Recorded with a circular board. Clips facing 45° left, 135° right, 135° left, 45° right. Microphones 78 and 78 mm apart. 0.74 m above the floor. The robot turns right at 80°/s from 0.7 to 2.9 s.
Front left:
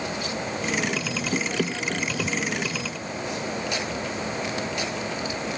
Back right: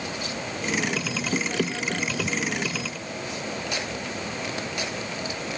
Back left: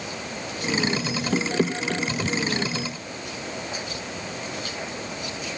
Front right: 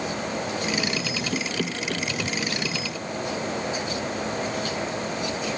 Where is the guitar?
I don't hear a guitar.